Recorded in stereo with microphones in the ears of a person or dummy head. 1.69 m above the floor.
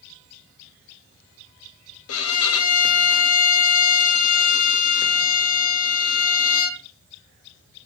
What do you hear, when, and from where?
2.1 s a violin: 80° left, 1.0 m